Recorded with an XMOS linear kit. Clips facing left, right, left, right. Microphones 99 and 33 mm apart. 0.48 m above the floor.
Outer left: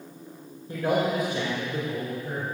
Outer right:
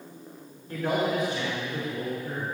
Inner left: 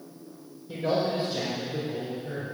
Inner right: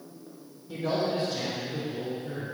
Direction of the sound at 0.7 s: 25° left (ahead or behind).